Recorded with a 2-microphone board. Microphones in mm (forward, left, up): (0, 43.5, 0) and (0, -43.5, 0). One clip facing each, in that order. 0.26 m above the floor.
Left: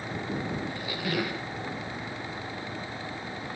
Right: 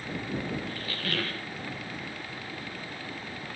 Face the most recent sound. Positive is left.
turn(degrees=15)  # may be behind; listen again after turning